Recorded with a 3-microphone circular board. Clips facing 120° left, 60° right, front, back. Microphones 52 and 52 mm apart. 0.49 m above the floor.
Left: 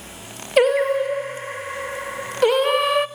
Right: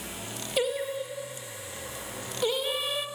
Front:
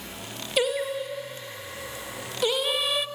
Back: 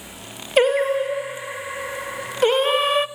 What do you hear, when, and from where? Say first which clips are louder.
0.6 s singing: left 13 dB, back 9 dB; 135° left, 0.6 m